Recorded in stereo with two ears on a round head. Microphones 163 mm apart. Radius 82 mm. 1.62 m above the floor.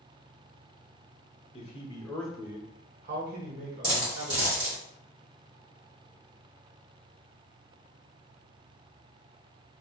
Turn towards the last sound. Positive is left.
turn(degrees=-25)  # may be behind; listen again after turning